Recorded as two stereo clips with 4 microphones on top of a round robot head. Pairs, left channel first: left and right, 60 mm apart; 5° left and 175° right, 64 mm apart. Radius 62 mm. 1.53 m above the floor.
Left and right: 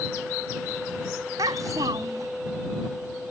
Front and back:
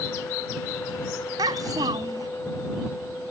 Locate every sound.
1.4 s a child speaking: 135° right